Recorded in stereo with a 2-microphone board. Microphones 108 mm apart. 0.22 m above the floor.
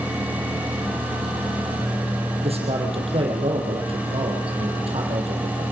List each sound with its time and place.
2.4 s a man speaking: 65° right (ahead or behind), 5.5 m